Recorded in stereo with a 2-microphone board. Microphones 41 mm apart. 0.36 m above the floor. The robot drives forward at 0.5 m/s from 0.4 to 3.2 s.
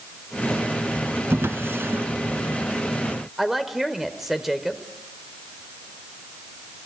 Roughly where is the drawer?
Right.